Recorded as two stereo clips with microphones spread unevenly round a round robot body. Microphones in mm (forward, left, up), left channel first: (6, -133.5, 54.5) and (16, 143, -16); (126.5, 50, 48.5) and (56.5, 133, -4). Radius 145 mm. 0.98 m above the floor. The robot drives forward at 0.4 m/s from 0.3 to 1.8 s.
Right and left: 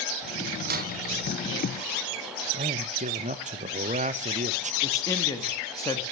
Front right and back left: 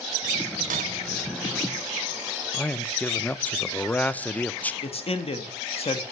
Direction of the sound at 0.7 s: 155° left.